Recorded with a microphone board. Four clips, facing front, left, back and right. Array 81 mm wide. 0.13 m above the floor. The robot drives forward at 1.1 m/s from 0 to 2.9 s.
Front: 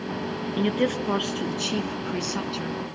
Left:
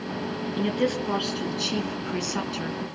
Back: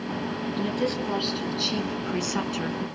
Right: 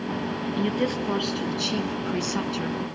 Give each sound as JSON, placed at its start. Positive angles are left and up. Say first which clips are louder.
{"t": 0.6, "sound": "a woman speaking", "louder": "left 1 dB, front 4 dB", "azimuth_deg": 0, "distance_m": 2.5}